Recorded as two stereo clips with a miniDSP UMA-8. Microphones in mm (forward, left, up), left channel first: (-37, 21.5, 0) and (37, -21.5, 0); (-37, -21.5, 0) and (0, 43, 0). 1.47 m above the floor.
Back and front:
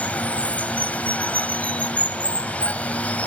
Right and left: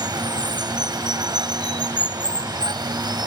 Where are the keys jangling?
I don't hear keys jangling.